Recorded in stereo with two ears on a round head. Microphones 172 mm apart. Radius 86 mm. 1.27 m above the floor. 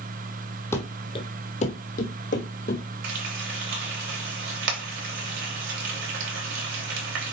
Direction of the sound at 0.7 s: 15° left (ahead or behind).